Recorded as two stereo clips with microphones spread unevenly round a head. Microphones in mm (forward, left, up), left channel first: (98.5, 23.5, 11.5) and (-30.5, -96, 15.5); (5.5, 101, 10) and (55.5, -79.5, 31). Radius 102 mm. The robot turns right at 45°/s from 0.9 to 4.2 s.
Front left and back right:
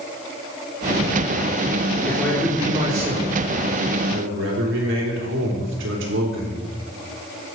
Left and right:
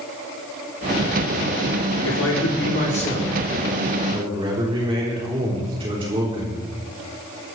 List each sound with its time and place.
2.0 s a man speaking: 125° left, 4 m; by 6.6 s 140° right, 4 m